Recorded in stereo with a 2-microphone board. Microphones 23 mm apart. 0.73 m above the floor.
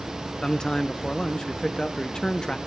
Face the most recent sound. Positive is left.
turn(degrees=30)  # may be behind; listen again after turning